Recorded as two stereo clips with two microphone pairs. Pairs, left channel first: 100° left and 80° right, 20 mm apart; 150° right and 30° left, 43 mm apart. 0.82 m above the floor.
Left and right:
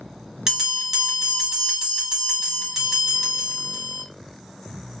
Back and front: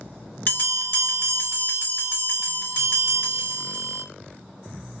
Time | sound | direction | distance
0.5 | a bell | 140° right | 1.1 m